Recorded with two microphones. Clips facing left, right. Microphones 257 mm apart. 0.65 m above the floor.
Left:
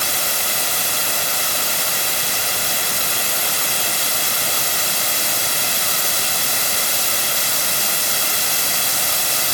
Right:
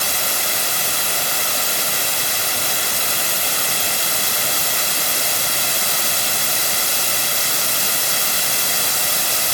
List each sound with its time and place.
Only background noise.